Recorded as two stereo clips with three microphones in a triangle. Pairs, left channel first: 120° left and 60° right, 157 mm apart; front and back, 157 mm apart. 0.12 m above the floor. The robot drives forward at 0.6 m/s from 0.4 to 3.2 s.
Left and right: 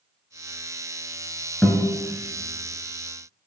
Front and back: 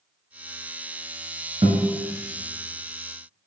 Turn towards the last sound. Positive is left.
turn(degrees=-170)